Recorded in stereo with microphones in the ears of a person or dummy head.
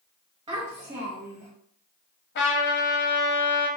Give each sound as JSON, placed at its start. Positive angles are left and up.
{"t": 0.5, "sound": "a child speaking", "side_deg": -25, "distance_m": 1.2}
{"t": 2.4, "sound": "a trumpet", "side_deg": 50, "distance_m": 0.9}